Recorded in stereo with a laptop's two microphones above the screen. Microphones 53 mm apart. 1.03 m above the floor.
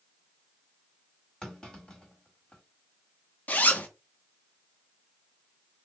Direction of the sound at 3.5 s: 30° left (ahead or behind).